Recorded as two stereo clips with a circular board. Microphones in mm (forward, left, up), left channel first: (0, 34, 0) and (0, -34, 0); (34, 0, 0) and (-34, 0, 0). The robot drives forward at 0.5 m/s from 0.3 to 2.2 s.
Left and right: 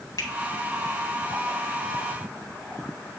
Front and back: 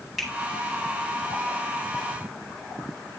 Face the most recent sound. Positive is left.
turn(degrees=110)